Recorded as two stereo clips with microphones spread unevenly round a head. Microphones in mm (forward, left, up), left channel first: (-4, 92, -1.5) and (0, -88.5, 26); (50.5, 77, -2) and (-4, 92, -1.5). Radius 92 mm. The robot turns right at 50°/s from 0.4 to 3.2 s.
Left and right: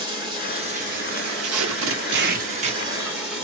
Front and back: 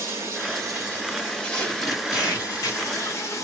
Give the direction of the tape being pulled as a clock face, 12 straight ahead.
3 o'clock.